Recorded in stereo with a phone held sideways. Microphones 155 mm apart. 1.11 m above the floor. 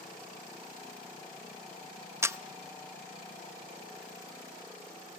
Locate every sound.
2.2 s a camera shutter: 15° right (ahead or behind), 0.6 m